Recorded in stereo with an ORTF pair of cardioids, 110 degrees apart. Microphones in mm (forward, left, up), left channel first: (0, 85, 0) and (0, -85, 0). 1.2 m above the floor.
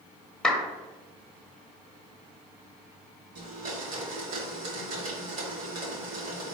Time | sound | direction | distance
0.4 | a clap | 5° left | 0.9 m
3.4 | a blender | 60° right | 1.7 m